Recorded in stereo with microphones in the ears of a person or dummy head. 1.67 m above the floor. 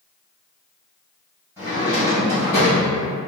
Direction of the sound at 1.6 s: 10° right (ahead or behind).